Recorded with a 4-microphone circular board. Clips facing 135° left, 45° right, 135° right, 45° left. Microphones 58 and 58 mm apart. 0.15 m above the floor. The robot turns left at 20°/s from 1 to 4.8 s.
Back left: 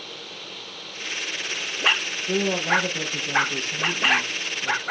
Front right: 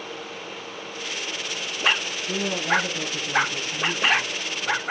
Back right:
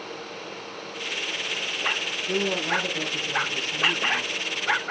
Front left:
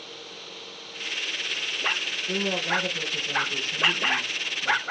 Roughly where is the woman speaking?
Behind.